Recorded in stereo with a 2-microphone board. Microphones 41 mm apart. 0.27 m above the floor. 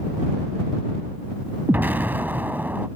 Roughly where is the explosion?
Right.